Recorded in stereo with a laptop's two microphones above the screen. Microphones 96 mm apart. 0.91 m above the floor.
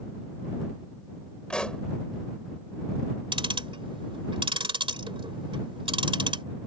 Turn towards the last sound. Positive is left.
turn(degrees=-65)  # may be behind; listen again after turning